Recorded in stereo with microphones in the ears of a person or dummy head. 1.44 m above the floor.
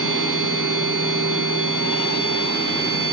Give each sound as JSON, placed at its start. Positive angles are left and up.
{"t": 0.0, "sound": "a machine running", "side_deg": -75, "distance_m": 1.3}